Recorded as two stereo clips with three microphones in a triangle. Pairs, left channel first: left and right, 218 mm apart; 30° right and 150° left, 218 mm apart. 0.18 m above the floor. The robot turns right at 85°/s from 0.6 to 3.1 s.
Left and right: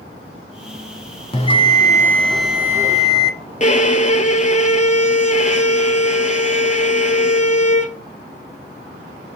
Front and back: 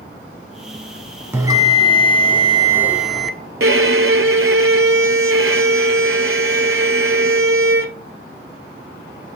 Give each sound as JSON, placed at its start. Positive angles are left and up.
{"t": 1.3, "sound": "a bell", "azimuth_deg": 90, "distance_m": 0.7}
{"t": 3.6, "sound": "a violin", "azimuth_deg": 140, "distance_m": 0.6}